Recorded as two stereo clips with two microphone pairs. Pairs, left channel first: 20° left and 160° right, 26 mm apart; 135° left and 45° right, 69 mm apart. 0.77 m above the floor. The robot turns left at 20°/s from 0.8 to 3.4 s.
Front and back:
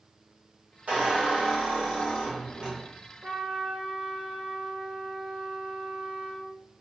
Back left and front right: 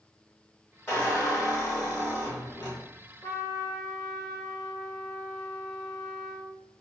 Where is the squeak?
175° right, 1.3 m; by 2.8 s 145° left, 1.3 m.